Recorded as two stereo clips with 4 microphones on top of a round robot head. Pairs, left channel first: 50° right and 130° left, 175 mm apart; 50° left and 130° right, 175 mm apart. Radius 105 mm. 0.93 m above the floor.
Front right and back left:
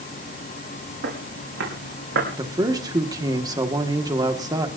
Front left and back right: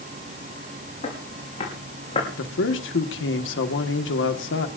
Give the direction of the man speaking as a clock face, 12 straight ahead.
10 o'clock.